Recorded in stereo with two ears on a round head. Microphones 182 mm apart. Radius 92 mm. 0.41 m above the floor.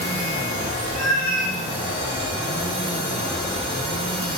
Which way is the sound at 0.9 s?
20° left (ahead or behind).